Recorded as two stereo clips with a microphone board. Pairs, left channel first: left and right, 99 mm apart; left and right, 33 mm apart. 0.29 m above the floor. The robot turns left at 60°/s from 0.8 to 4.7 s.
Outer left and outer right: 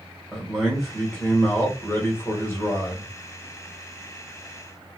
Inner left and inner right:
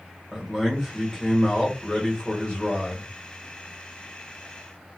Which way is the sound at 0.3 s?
Centre (ahead or behind).